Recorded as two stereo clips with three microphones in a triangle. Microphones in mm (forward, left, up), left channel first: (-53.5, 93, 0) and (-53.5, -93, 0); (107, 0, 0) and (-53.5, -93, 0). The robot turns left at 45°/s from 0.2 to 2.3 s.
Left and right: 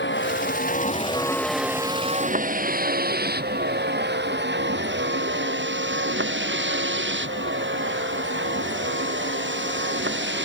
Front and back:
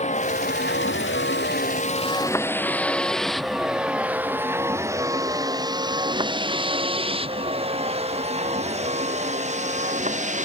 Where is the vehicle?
80° left; by 10.4 s 100° right.